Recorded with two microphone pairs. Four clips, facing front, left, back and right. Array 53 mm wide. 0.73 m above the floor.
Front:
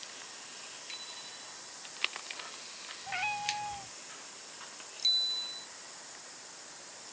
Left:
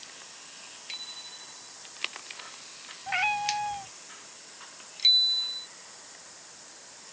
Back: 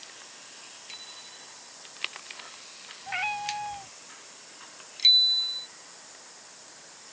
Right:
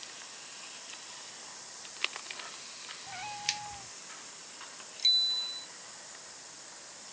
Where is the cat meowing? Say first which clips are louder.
Left 12 dB, back 4 dB; 110° left.